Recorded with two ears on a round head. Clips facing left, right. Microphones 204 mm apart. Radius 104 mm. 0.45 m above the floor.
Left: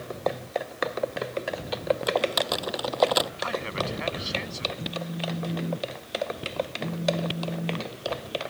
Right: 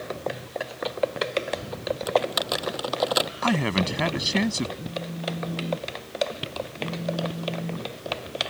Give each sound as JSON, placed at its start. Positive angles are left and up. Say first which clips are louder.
{"t": 2.1, "sound": "typing on a keyboard", "louder": "right 1 dB", "side_deg": -5}
{"t": 3.4, "sound": "a man speaking", "louder": "right 6 dB", "side_deg": -70}
{"t": 4.8, "sound": "a phone buzzing", "louder": "even", "side_deg": 5}